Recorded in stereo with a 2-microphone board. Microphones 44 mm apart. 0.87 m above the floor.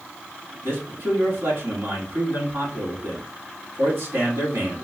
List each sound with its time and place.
0.6 s a man speaking: 75° right (ahead or behind), 2 m